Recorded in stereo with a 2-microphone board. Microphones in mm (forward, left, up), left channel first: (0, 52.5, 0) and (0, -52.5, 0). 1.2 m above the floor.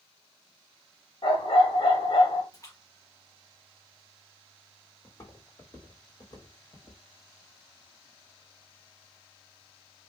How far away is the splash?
About 1.6 m.